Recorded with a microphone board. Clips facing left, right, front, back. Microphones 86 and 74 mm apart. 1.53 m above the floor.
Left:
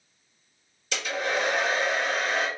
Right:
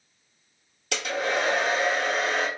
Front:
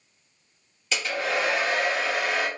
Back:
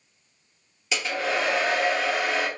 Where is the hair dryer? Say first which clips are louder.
Right 2 dB, even; 100° right, 1.6 m.